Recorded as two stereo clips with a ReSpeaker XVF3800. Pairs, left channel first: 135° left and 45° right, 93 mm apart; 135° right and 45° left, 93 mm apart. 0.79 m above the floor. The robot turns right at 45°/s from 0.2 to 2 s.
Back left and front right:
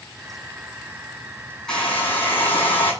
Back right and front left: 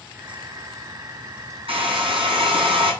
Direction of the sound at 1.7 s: 55° left.